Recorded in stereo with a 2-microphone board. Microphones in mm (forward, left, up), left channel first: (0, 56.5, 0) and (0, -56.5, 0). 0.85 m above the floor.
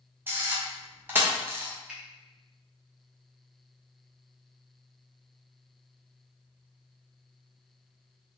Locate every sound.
0.3 s a camera shutter: 20° right (ahead or behind), 0.6 m
1.9 s a finger snap: 5° right (ahead or behind), 0.7 m